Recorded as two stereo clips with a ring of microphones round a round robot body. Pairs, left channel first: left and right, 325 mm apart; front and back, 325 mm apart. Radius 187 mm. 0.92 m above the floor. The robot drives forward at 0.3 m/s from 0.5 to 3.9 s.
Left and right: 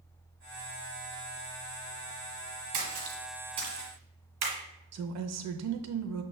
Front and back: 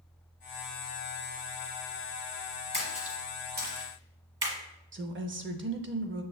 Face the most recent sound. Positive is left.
turn(degrees=-125)